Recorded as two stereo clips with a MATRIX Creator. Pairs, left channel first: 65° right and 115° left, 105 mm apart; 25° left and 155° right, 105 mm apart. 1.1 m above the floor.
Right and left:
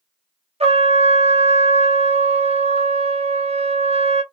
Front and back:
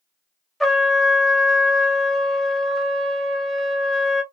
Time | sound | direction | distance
0.6 | a trumpet | 110° left | 0.7 m